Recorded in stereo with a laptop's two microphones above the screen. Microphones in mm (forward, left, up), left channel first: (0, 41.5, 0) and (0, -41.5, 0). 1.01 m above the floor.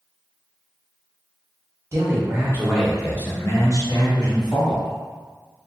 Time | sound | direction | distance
1.9 | a man speaking | 35° right (ahead or behind) | 0.8 m